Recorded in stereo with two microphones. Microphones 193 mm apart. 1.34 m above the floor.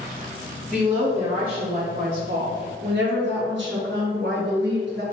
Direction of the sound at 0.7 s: 15° right (ahead or behind).